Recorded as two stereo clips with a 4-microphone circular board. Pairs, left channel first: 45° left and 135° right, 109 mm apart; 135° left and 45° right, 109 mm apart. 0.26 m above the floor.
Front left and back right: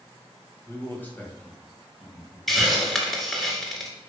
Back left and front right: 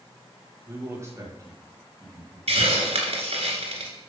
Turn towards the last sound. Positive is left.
turn(degrees=-45)